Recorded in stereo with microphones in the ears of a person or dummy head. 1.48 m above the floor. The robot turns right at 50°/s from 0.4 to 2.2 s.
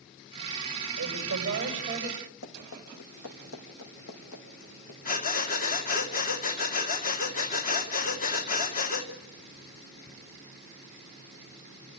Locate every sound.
1.0 s a woman speaking: 80° right, 7.5 m; by 2.3 s 20° right, 7.5 m
2.4 s running footsteps: 65° left (ahead or behind), 5 m; by 5.0 s 75° left (ahead or behind), 5.5 m
5.0 s breathing: 45° left (ahead or behind), 2 m